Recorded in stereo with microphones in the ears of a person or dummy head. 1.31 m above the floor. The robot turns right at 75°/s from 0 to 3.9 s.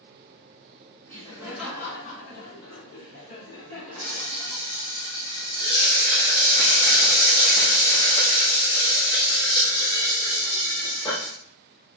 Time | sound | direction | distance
1.1 | laughter | 40° right | 2.5 m
4.0 | frying | 30° left (ahead or behind) | 1.8 m